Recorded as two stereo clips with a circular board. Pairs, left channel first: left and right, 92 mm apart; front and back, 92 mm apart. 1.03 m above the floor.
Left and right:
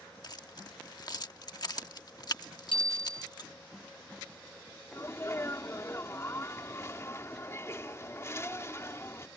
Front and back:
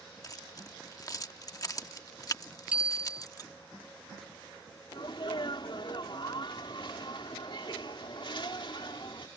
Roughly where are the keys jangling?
Ahead left.